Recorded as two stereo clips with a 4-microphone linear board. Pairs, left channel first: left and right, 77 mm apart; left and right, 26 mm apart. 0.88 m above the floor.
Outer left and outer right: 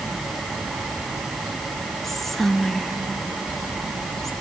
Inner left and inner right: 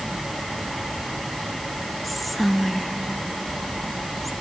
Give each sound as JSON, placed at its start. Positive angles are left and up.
{"t": 2.0, "sound": "whispering", "side_deg": 5, "distance_m": 0.9}